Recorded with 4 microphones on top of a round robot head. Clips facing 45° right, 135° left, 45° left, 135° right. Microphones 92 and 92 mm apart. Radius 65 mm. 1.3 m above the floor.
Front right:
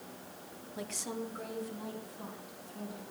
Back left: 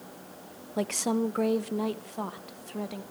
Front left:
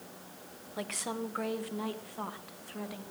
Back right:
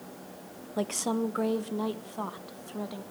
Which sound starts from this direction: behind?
A woman speaking, at 0.8 s.